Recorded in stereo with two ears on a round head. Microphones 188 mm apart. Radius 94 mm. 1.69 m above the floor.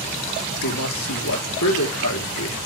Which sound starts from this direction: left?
A man speaking, at 0.6 s.